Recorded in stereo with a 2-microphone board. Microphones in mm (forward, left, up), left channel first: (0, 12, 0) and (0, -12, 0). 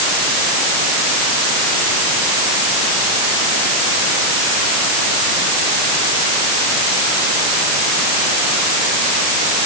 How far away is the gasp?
I don't hear a gasp.